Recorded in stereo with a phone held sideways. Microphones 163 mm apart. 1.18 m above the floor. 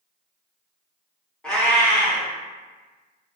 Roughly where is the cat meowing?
Centre.